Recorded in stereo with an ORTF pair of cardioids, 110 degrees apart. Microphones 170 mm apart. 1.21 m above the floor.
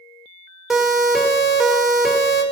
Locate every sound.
0.7 s a siren: 5° right, 3.5 m